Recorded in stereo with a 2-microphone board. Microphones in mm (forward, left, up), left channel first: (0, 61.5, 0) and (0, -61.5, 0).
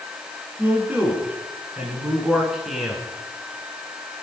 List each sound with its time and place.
0.6 s a man speaking: 15° right (ahead or behind), 7.5 m; by 3.0 s centre (ahead or behind), 6.5 m